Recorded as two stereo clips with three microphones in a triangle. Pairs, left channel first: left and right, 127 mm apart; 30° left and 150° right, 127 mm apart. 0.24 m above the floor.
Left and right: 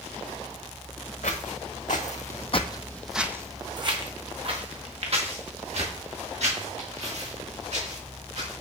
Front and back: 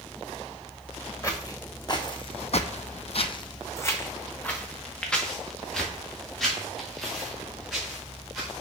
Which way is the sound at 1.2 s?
95° left.